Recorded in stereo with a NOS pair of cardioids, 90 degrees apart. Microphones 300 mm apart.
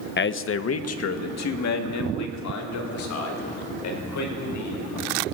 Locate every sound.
0.2 s a man speaking: 35° left, 1.2 m; by 5.0 s 70° left, 7.5 m